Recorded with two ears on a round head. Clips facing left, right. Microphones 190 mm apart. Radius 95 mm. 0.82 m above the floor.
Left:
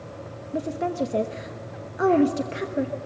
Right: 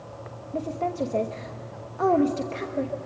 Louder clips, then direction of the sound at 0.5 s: Left 2 dB; 15° left (ahead or behind).